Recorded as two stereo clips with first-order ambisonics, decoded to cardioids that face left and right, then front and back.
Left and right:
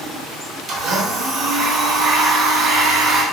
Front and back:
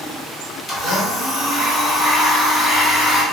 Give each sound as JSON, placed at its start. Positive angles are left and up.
{"t": 0.7, "sound": "a blender", "azimuth_deg": -60, "distance_m": 0.9}